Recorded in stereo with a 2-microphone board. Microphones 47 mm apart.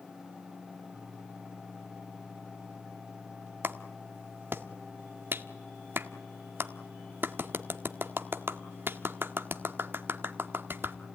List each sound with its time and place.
3.6 s a clap: 50° right (ahead or behind), 1.4 m